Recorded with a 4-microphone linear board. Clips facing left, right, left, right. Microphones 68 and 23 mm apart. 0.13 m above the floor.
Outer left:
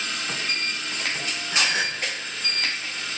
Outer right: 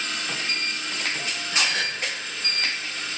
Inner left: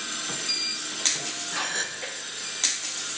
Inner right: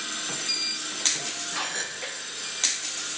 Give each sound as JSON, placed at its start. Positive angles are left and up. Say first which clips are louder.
{"t": 1.5, "sound": "a gasp", "louder": "outer left 2 dB, inner left 3 dB", "side_deg": 20, "distance_m": 0.6}